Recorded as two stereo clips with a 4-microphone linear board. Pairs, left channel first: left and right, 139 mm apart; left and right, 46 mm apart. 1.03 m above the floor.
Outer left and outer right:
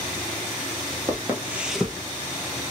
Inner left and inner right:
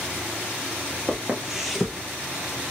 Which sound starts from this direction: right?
Footsteps, at 1.1 s.